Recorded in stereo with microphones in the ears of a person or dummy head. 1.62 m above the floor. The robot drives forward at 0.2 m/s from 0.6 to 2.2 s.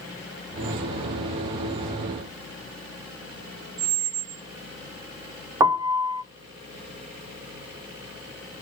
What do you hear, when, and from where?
3.8 s a squeak: 20° right (ahead or behind), 0.5 m
5.6 s a piano: 20° right (ahead or behind), 0.5 m